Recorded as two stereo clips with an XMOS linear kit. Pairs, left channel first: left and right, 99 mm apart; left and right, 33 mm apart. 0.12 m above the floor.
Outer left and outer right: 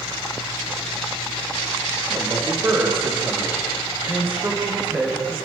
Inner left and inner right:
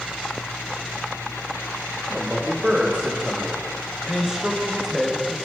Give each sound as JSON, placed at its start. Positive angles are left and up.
{"t": 2.1, "sound": "a man speaking", "side_deg": -25, "distance_m": 6.5}